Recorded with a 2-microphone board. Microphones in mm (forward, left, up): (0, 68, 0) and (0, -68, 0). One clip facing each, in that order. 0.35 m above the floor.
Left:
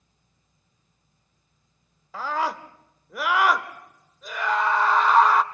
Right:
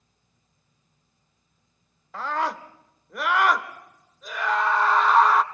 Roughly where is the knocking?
I don't hear knocking.